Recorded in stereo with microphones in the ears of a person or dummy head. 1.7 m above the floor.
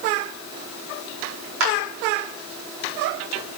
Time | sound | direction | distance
1.6 | a clap | 80° right | 4.5 m